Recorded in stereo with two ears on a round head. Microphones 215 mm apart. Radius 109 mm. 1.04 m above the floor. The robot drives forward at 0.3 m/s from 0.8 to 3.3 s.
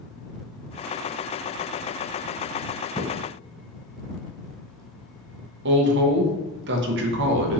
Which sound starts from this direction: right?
A woman speaking, at 5.7 s.